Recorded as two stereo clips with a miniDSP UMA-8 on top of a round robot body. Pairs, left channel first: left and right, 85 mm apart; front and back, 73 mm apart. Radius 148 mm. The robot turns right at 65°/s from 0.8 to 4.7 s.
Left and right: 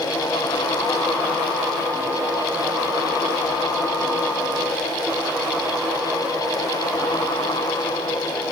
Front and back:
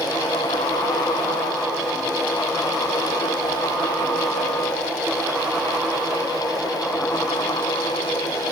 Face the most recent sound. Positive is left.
No sound to turn to.